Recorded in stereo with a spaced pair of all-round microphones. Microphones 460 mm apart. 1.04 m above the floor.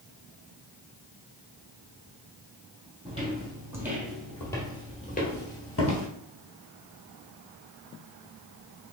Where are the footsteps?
10° right (ahead or behind), 2 m; by 6.1 s 35° left (ahead or behind), 1.5 m.